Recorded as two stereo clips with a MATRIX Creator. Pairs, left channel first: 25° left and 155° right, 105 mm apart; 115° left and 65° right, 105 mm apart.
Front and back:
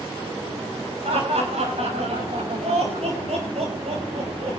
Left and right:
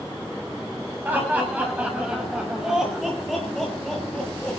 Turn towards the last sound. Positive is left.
turn(degrees=-170)